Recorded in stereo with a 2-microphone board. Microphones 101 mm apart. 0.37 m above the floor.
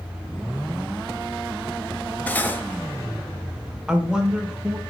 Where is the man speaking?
10° right (ahead or behind), 1.0 m.